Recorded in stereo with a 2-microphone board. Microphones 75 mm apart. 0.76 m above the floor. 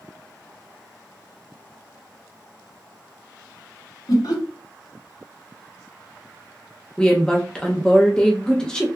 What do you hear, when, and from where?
4.1 s laughter: 60° left (ahead or behind), 1.5 m
7.0 s a woman speaking: 10° left (ahead or behind), 0.7 m